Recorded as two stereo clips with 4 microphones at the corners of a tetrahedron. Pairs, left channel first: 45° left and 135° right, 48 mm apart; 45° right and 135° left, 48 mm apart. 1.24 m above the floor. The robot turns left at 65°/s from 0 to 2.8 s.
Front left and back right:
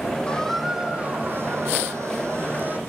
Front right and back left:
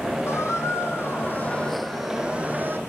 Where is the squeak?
25° right, 3.5 m; by 2.8 s 175° left, 3.5 m.